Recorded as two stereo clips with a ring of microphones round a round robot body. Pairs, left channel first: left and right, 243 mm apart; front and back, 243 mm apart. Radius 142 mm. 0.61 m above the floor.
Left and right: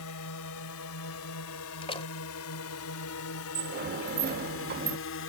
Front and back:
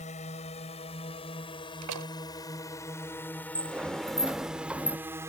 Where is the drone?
65° left; by 5.3 s 105° left.